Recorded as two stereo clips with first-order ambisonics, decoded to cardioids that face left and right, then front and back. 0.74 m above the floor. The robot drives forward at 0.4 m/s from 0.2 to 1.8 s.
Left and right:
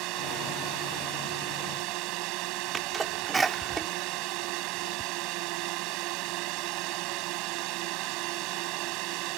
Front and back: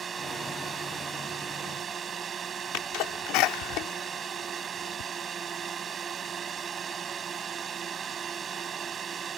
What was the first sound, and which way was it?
A drone, 115° right.